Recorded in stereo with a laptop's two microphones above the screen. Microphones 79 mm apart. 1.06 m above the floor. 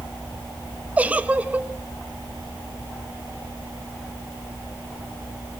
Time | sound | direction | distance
1.0 | a giggle | 20° right (ahead or behind) | 1.1 m